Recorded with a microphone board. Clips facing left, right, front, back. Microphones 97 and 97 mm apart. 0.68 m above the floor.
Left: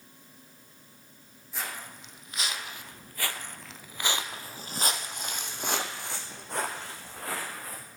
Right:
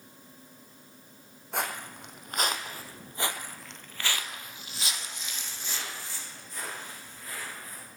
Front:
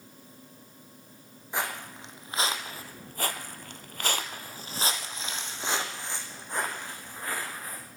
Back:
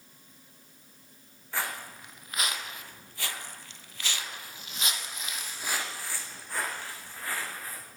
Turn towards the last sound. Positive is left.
turn(degrees=75)